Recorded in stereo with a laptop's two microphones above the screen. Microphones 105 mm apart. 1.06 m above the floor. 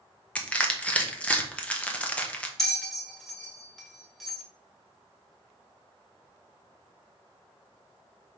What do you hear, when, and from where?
0.3 s crushing: 10° left (ahead or behind), 0.8 m
2.6 s a bell: centre (ahead or behind), 1.7 m